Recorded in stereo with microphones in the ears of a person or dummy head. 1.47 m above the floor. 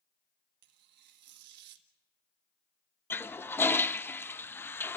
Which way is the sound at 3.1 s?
5° left (ahead or behind).